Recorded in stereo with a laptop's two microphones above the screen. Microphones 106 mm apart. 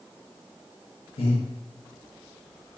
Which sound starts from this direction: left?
Breathing, at 1.2 s.